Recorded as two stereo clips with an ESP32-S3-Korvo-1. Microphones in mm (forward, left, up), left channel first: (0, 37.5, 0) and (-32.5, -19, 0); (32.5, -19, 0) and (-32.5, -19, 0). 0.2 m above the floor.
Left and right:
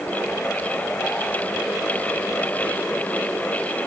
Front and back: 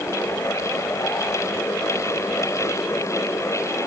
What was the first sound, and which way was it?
Only background noise.